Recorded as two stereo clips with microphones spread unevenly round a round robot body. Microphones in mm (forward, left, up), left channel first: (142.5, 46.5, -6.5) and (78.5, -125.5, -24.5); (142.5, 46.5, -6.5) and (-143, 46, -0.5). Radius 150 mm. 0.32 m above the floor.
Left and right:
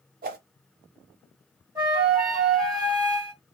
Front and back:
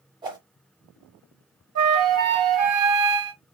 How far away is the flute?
About 1.6 m.